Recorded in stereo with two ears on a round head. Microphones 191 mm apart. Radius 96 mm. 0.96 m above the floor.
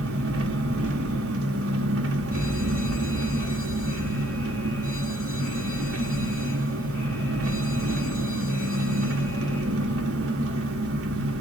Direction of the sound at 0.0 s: 70° right (ahead or behind).